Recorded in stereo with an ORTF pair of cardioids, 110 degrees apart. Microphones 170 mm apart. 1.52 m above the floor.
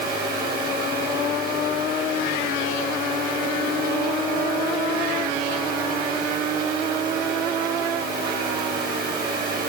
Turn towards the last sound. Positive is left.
turn(degrees=-70)